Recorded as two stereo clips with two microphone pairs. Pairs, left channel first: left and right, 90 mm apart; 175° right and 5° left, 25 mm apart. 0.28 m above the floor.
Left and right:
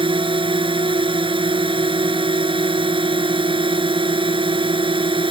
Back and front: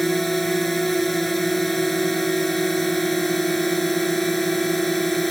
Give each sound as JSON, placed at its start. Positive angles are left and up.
{"t": 0.0, "sound": "a drone", "azimuth_deg": -95}